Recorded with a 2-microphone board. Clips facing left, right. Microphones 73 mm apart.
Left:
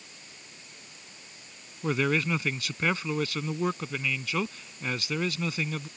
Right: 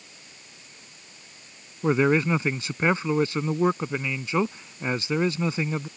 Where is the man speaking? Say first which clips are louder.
Right 6 dB; 25° right (ahead or behind).